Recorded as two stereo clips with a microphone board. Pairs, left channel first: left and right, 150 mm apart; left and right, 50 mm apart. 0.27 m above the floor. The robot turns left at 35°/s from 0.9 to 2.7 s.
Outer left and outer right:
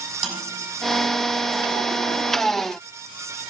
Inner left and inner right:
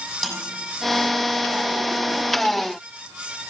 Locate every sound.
0.2 s a snare drum: 5° left (ahead or behind), 6.5 m